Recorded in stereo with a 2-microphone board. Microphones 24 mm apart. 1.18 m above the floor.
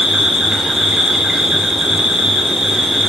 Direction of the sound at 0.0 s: 25° right (ahead or behind).